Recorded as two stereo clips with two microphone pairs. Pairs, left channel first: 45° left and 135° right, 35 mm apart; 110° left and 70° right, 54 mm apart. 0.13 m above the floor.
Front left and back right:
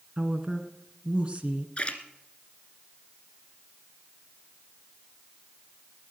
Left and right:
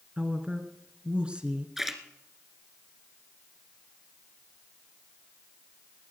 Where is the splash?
15° left, 1.5 m.